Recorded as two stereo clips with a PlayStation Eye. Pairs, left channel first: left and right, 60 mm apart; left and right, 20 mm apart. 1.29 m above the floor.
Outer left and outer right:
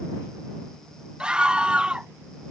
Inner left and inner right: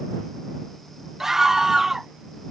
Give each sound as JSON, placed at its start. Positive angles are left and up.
{"t": 1.2, "sound": "a scream", "side_deg": -15}